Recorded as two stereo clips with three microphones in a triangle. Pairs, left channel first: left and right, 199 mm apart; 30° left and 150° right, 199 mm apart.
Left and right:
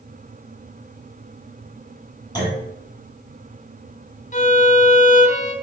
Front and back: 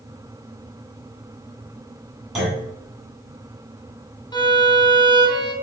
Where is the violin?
85° left, 0.7 m.